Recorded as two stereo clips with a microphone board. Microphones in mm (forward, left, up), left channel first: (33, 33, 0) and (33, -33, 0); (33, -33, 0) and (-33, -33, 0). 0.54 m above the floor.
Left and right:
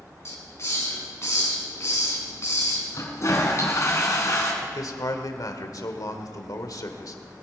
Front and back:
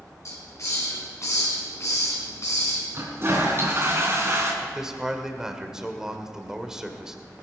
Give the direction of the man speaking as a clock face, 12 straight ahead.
9 o'clock.